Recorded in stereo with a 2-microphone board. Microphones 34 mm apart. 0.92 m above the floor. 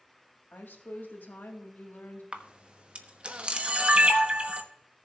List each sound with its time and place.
0.5 s a woman speaking: 65° left (ahead or behind), 1.8 m
2.3 s a camera shutter: 35° right (ahead or behind), 1.1 m